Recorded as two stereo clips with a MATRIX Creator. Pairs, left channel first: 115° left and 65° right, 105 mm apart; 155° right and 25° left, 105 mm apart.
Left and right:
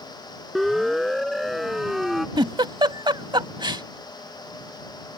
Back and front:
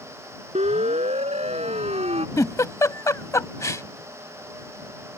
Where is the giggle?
100° right.